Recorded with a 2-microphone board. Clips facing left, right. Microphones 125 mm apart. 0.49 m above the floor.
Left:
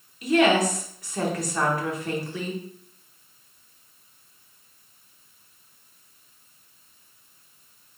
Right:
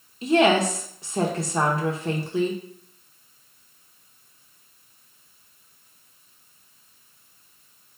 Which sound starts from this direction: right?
A woman speaking, at 0.2 s.